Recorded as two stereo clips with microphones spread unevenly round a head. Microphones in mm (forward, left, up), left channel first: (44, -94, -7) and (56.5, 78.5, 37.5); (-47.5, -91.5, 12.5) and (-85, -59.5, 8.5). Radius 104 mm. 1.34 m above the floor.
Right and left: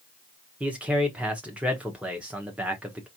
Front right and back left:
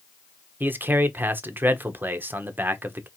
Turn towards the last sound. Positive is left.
turn(degrees=175)